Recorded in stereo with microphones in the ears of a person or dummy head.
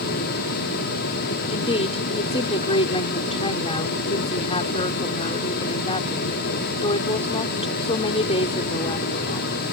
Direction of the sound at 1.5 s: 30° left (ahead or behind).